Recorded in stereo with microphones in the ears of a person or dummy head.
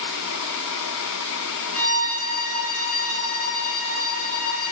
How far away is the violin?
About 4 m.